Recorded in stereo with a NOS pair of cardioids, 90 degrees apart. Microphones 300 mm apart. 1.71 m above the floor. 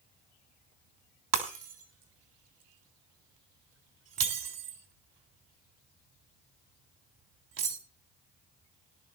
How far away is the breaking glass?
About 3.5 m.